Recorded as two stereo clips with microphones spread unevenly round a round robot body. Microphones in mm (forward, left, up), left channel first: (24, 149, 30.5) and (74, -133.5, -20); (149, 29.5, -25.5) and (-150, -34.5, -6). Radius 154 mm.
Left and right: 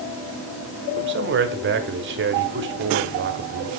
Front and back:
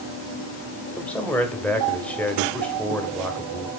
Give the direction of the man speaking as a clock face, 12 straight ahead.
2 o'clock.